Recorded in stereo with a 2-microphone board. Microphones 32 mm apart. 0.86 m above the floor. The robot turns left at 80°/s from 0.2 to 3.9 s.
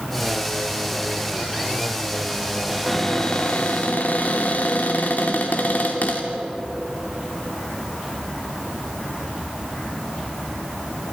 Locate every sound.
2.7 s a cupboard door: 170° right, 3 m; by 6.3 s 95° left, 3 m